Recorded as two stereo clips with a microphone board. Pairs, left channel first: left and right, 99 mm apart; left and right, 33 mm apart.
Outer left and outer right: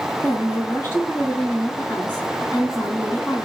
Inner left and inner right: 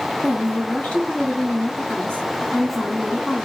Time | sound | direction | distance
0.2 | a woman speaking | 30° left (ahead or behind) | 3.5 m